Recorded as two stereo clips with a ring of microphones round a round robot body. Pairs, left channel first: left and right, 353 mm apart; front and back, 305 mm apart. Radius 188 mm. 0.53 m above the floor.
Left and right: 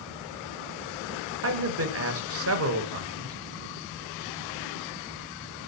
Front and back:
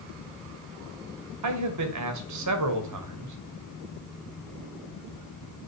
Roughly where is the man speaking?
Behind right.